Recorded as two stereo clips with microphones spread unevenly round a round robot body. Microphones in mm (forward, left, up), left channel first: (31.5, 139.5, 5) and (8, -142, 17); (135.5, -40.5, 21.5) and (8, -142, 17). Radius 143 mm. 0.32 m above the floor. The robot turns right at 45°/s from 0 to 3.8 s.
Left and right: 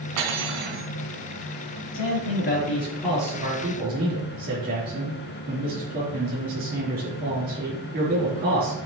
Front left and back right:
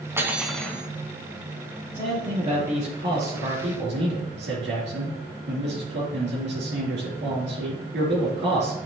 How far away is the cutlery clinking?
About 2 m.